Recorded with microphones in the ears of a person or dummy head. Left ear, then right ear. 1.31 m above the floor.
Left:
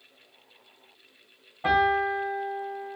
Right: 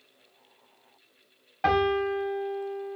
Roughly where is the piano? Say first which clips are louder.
Left 2 dB; right.